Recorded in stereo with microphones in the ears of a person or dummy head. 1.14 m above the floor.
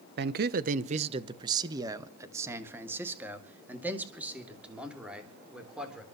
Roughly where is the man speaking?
Right.